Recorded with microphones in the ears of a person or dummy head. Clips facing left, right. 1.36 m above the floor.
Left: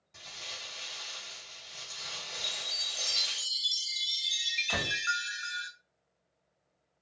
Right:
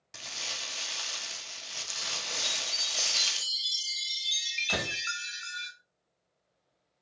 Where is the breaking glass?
No breaking glass in this recording.